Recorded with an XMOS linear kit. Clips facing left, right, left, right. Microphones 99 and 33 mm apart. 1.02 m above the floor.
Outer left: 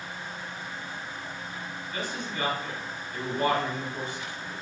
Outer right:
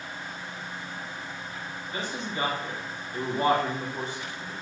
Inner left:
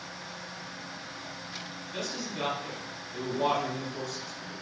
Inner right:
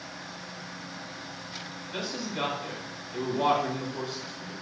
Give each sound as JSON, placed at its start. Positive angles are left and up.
{"t": 1.9, "sound": "a man speaking", "side_deg": -35, "distance_m": 1.9}